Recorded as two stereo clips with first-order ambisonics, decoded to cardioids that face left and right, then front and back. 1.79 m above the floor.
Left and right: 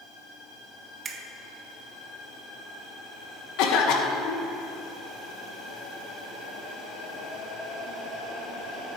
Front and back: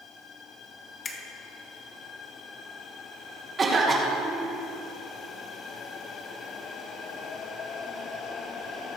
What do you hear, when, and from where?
1.1 s a finger snap: 40° right, 1.0 m
3.6 s a cough: 110° left, 1.7 m